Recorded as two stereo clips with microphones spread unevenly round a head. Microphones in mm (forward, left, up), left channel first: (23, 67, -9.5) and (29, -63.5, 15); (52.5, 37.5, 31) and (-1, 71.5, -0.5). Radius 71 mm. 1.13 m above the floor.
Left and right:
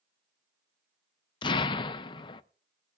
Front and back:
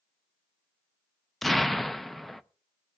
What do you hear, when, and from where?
1.4 s an explosion: 85° left, 0.5 m